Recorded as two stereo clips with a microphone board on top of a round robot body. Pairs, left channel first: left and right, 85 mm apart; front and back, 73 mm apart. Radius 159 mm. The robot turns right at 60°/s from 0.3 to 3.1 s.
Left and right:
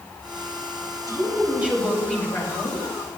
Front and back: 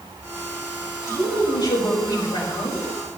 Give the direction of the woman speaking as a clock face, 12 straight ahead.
2 o'clock.